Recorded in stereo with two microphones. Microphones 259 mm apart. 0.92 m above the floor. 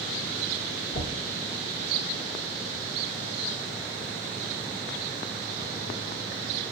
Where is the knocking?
65° left (ahead or behind), 1.6 m.